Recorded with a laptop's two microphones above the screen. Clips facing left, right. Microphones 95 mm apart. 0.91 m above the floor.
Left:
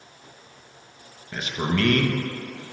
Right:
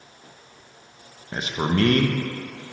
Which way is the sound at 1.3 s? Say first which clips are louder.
Right 2 dB; 30° right (ahead or behind).